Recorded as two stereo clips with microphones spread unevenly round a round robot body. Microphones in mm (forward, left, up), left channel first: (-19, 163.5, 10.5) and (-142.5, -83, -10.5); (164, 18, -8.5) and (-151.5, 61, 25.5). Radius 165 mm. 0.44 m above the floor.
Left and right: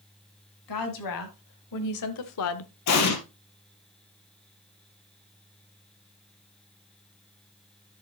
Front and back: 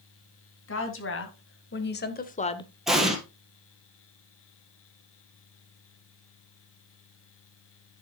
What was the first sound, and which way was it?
A woman speaking, 40° left.